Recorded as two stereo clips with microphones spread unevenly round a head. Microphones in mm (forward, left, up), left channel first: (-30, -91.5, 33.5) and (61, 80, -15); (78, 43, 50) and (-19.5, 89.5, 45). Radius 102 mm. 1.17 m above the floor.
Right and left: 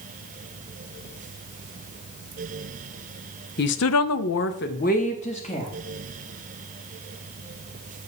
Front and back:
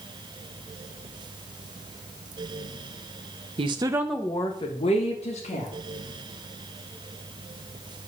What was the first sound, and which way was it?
A woman speaking, 165° right.